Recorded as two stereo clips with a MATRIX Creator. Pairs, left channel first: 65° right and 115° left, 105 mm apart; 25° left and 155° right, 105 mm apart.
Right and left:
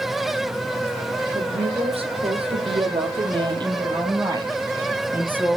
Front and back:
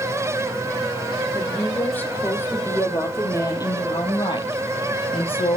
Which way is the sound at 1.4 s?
100° left.